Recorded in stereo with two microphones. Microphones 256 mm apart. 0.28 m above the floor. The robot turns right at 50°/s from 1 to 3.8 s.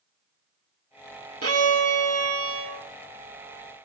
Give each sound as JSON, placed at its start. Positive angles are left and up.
{"t": 1.4, "sound": "a violin", "azimuth_deg": -115, "distance_m": 0.6}